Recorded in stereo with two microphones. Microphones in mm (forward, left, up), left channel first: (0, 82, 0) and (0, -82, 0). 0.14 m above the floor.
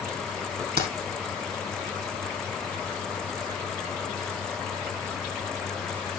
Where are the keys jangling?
75° right (ahead or behind), 3 m.